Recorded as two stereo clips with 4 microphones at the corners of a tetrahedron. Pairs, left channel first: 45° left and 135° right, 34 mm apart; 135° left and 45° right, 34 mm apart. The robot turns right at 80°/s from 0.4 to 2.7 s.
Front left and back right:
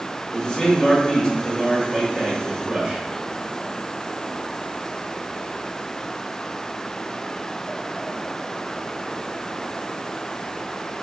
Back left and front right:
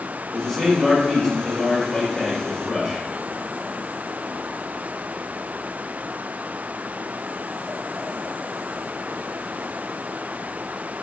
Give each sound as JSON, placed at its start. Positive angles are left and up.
{"t": 0.3, "sound": "a man speaking", "azimuth_deg": 40, "distance_m": 1.4}